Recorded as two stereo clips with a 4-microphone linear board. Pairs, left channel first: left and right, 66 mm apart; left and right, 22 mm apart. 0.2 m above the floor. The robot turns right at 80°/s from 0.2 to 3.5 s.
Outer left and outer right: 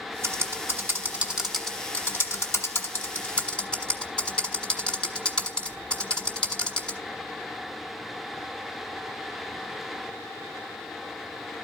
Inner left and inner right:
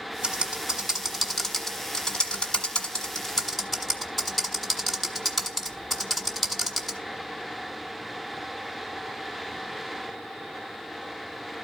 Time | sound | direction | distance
0.2 | typing on a keyboard | 45° right (ahead or behind) | 1.4 m